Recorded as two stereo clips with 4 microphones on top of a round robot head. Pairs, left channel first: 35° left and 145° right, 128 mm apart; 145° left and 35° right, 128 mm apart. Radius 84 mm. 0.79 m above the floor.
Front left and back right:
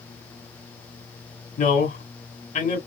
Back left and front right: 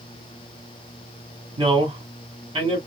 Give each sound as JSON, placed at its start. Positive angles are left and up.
{"t": 1.6, "sound": "a man speaking", "azimuth_deg": 15, "distance_m": 2.5}